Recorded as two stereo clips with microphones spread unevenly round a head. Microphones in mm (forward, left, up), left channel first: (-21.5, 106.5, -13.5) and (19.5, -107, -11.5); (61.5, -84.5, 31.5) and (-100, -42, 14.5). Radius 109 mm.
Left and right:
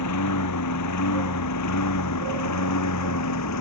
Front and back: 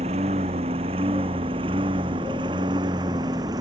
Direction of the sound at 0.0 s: 100° left.